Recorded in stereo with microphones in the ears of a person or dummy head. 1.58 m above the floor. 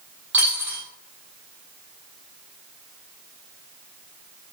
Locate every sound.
0.3 s a dropped coin: 10° right (ahead or behind), 1.2 m